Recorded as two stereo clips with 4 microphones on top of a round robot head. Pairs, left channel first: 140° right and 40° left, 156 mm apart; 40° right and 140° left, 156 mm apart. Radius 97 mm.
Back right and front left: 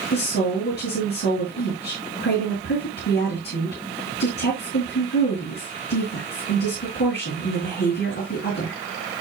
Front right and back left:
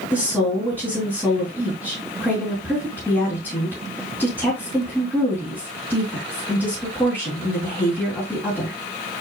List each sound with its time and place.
0.1 s a woman speaking: 120° right, 5 m